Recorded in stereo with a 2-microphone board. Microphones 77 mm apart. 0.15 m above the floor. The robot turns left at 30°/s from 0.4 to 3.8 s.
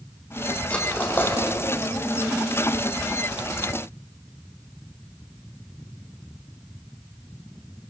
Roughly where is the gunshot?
I don't hear a gunshot.